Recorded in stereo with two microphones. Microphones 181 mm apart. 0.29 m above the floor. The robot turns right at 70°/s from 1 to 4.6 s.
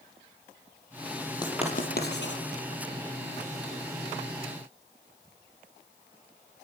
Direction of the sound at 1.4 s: 20° left (ahead or behind).